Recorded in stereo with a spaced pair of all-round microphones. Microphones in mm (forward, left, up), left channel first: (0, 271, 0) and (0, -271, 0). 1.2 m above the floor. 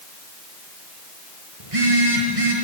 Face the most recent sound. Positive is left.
turn(degrees=-80)